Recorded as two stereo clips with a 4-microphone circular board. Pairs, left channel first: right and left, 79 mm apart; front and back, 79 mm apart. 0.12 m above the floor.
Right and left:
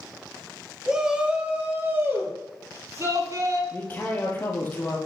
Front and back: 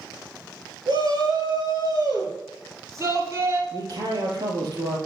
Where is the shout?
170° left, 2 m; by 3.6 s 130° left, 3 m.